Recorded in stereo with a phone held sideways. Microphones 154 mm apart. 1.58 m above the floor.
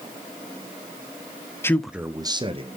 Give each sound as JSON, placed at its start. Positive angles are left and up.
{"t": 1.6, "sound": "a man speaking", "side_deg": 15, "distance_m": 0.5}